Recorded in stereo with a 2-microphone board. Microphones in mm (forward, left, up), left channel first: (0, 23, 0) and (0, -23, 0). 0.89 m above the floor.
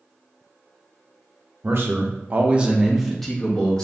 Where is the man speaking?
55° right (ahead or behind), 0.7 m; by 3.8 s 15° left (ahead or behind), 1.1 m.